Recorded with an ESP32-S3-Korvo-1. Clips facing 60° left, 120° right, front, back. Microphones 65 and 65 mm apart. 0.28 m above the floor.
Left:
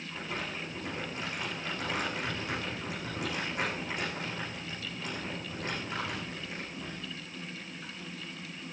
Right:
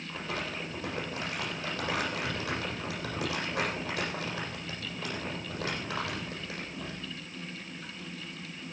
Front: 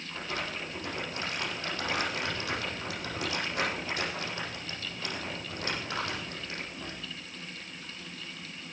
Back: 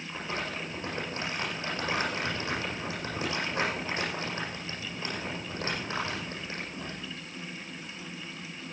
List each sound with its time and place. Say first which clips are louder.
0.1 s crumpling: right 2 dB, back 1 dB; 115° right, 8 m